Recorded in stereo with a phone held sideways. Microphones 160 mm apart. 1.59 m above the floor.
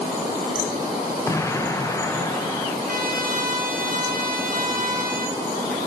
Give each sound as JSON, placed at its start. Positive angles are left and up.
{"t": 1.3, "sound": "an explosion", "side_deg": 20, "distance_m": 1.0}
{"t": 2.9, "sound": "a trumpet", "side_deg": -60, "distance_m": 1.5}